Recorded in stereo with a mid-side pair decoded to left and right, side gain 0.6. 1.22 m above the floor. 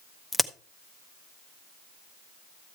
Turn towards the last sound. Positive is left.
turn(degrees=-5)